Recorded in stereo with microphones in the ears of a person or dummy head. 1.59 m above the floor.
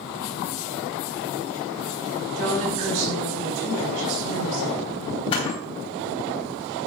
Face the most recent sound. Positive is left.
turn(degrees=35)  # may be behind; listen again after turning